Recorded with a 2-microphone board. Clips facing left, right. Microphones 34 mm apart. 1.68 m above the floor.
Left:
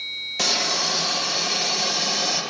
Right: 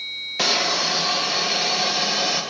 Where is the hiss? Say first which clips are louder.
Right 3 dB; 20° right (ahead or behind), 0.8 m.